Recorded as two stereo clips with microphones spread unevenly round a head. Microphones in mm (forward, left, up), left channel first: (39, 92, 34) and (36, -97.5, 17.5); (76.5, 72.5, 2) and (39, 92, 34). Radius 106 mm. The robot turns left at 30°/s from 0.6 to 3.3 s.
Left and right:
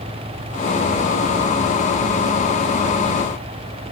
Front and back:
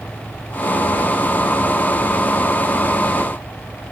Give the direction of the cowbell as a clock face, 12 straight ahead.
I don't hear a cowbell.